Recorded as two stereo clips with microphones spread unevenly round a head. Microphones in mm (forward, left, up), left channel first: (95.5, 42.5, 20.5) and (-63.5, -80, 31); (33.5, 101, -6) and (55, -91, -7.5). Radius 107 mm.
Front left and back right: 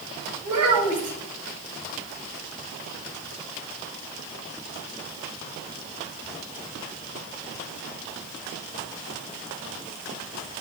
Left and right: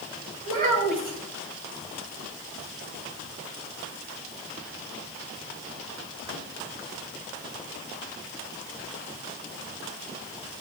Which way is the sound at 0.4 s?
140° right.